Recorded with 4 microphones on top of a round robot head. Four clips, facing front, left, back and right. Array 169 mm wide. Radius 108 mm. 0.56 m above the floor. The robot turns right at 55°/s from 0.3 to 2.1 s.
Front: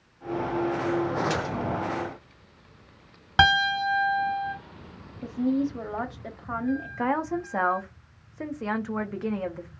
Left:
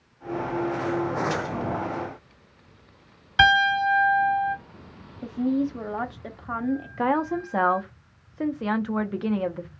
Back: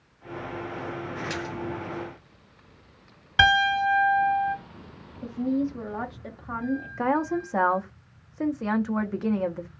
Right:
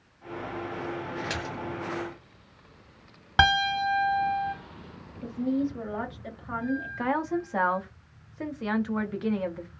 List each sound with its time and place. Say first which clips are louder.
1.3 s a splash: left 6 dB, front 4 dB; 80° right, 1.3 m; by 1.6 s 65° right, 1.3 m
3.4 s a piano: left 4 dB, back 1 dB; 50° right, 1.8 m
5.2 s a woman speaking: left 3 dB, front 1 dB; 75° left, 0.9 m
7.0 s a woman speaking: left 5 dB, back 5 dB; 115° left, 0.6 m